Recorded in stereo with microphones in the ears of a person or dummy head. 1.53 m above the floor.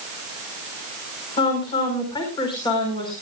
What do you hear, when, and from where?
1.4 s a woman speaking: 20° left (ahead or behind), 4 m